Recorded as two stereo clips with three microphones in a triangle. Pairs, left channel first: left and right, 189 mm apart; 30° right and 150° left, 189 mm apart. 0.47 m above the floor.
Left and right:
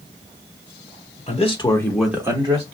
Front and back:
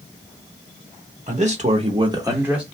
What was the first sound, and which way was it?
A man speaking, 120° left.